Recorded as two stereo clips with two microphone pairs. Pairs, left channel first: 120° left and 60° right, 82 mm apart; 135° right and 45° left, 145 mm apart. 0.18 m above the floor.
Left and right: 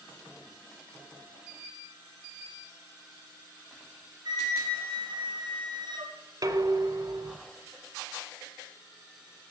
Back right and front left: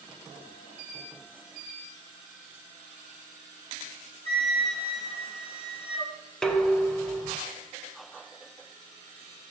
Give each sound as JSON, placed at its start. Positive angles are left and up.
{"t": 4.2, "sound": "a flute", "azimuth_deg": -85, "distance_m": 2.5}
{"t": 6.4, "sound": "dishes clattering", "azimuth_deg": -50, "distance_m": 1.1}